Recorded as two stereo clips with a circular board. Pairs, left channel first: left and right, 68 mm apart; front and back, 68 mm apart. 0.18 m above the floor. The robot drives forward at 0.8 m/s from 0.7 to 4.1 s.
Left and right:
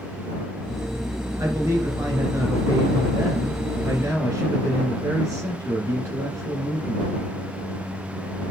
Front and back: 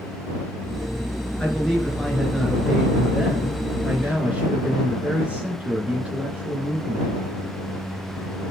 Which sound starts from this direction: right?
A man speaking, at 1.4 s.